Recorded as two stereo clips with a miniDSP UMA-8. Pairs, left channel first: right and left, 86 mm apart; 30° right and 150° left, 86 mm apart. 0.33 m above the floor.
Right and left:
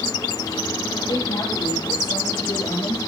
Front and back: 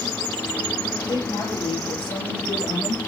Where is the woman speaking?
55° right, 9 m.